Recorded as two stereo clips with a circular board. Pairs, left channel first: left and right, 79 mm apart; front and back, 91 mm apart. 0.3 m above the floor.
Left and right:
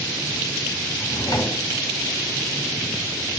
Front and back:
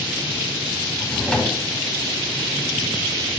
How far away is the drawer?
About 1.3 m.